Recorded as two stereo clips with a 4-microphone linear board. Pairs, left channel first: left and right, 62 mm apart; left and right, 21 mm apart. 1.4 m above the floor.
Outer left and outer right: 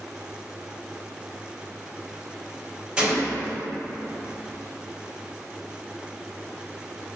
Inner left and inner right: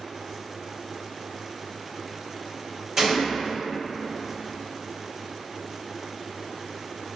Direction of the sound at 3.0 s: 15° right (ahead or behind).